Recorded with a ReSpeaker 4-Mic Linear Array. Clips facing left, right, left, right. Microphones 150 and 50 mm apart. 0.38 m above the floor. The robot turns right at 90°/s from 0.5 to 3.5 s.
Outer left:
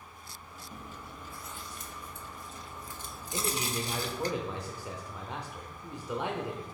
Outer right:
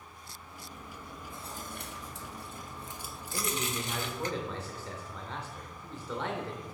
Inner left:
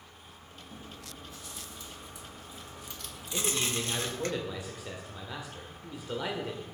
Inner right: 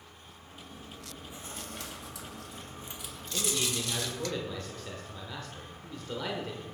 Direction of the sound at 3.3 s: 20° left (ahead or behind).